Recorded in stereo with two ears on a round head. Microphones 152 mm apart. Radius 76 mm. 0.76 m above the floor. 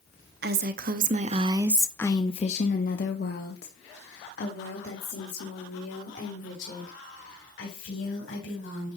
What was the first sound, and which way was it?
A woman speaking, 65° right (ahead or behind).